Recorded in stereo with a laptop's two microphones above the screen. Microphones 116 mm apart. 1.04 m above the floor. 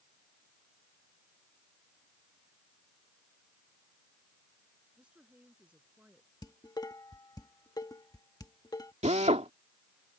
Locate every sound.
5.0 s a woman speaking: 10° right (ahead or behind)
6.4 s dishes clattering: 35° left (ahead or behind)
9.0 s a drill: 80° right